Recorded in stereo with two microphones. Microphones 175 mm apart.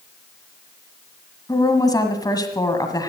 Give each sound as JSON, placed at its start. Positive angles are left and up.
{"t": 1.5, "sound": "a woman speaking", "side_deg": 20, "distance_m": 1.6}